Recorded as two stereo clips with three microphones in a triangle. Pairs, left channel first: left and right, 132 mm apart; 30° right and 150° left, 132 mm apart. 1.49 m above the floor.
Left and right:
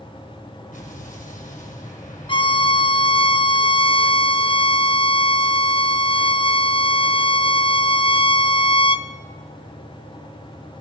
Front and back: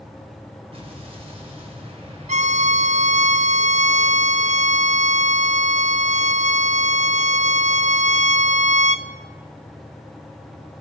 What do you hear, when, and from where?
0.7 s an explosion: 105° left, 5 m
2.3 s a violin: 135° left, 0.8 m